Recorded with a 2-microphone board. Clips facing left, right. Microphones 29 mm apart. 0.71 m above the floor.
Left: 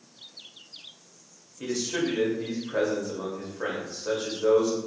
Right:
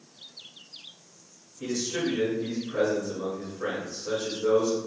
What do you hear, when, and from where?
1.6 s a man speaking: 50° left (ahead or behind), 1.4 m